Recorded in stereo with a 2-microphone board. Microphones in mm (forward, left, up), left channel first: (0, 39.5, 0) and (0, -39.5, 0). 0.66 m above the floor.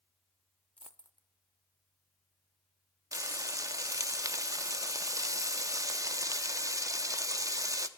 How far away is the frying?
About 0.9 m.